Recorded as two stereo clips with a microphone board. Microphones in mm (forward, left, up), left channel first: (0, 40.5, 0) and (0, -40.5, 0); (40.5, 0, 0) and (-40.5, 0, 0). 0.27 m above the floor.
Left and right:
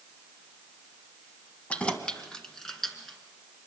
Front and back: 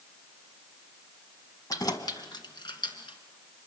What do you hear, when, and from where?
1.7 s keys jangling: 20° left, 1.5 m; by 3.2 s 5° left, 3 m